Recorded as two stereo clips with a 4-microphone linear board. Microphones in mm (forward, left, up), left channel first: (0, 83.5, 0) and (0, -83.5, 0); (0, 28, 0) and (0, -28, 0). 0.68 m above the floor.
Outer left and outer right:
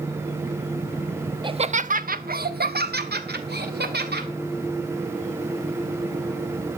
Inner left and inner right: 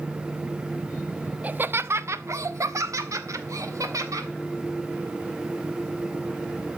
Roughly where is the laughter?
Right.